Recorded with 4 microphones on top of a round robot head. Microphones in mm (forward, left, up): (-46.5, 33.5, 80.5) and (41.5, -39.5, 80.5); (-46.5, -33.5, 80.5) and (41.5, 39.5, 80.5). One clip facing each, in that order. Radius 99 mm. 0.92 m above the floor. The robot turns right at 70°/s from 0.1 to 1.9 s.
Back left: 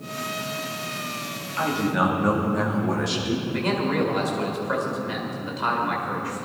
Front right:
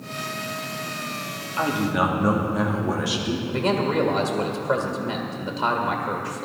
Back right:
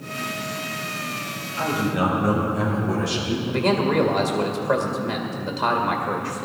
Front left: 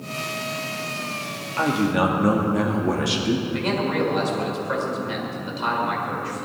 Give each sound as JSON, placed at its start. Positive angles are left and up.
{"t": 1.6, "sound": "a man speaking", "azimuth_deg": 20, "distance_m": 2.5}
{"t": 3.5, "sound": "a man speaking", "azimuth_deg": -85, "distance_m": 1.9}